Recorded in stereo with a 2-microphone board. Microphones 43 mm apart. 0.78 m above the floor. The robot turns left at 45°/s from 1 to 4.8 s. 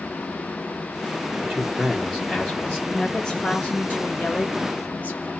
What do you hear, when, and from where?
1.4 s a man speaking: 160° right, 0.7 m; by 2.8 s 140° left, 0.7 m
2.9 s a woman speaking: 160° left, 1.1 m; by 5.3 s 75° left, 1.1 m